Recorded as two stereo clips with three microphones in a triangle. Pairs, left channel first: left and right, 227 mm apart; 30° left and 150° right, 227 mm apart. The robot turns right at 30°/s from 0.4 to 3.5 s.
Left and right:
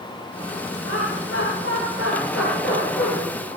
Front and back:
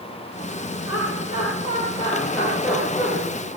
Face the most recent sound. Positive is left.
turn(degrees=145)